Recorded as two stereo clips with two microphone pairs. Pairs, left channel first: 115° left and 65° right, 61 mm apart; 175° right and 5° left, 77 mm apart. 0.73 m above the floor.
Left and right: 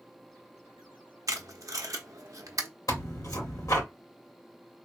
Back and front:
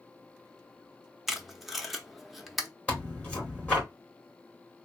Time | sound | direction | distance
1.3 | tape being pulled | 80° right | 0.6 m
2.9 | tearing paper | 115° left | 2 m